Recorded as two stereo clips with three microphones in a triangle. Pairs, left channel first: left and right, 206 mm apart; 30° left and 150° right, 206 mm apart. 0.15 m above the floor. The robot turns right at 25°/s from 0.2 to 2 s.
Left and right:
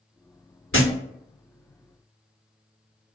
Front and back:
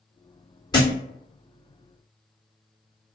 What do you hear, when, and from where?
0.7 s a thud: 100° left, 1.9 m; by 0.9 s 105° left, 1.9 m